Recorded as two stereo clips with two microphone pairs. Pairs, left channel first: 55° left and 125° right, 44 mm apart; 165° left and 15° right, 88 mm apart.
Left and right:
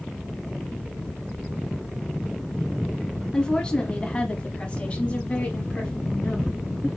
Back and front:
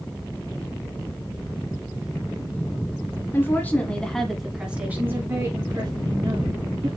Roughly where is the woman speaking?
Behind left.